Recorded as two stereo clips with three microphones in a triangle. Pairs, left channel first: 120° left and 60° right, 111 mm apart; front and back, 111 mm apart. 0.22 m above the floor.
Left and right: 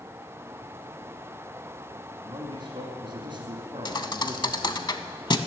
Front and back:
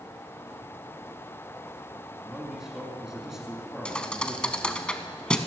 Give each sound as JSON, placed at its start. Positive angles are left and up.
{"t": 2.2, "sound": "a man speaking", "azimuth_deg": -95, "distance_m": 2.0}
{"t": 3.9, "sound": "a thud", "azimuth_deg": 80, "distance_m": 0.5}